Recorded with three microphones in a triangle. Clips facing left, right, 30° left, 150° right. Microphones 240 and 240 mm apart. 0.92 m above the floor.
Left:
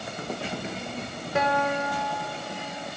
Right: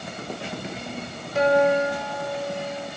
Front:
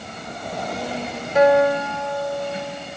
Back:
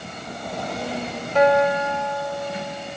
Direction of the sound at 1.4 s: 110° left.